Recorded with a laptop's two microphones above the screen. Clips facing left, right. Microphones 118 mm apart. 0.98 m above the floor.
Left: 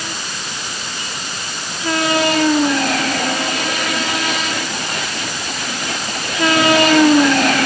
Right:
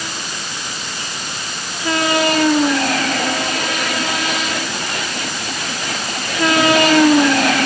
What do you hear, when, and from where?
Only background noise.